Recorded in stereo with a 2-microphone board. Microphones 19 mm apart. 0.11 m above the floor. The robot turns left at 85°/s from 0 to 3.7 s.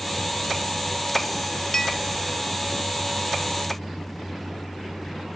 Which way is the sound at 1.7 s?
20° left (ahead or behind).